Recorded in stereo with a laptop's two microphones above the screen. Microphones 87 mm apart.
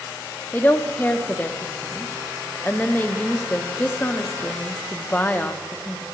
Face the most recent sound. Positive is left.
turn(degrees=20)  # may be behind; listen again after turning